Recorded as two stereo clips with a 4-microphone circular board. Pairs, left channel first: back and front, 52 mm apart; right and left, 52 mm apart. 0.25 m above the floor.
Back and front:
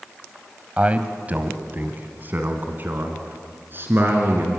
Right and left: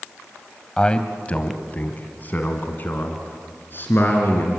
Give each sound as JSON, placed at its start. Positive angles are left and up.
{"t": 0.8, "sound": "a man speaking", "azimuth_deg": -35, "distance_m": 1.3}